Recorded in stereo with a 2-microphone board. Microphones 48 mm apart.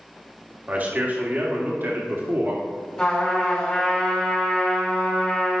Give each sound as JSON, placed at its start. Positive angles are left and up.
{"t": 0.7, "sound": "a man speaking", "side_deg": -35, "distance_m": 1.9}
{"t": 3.0, "sound": "a trumpet", "side_deg": 15, "distance_m": 3.5}